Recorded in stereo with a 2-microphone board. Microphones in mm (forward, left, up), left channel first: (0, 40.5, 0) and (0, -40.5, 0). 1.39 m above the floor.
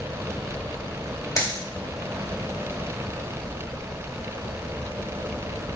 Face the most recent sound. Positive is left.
turn(degrees=35)  # may be behind; listen again after turning